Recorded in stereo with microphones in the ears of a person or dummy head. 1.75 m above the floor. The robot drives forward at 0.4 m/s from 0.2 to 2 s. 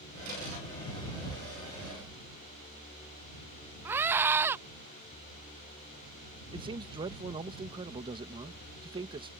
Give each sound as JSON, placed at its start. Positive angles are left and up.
{"t": 3.9, "sound": "a scream", "side_deg": -10}
{"t": 6.5, "sound": "a man speaking", "side_deg": -20}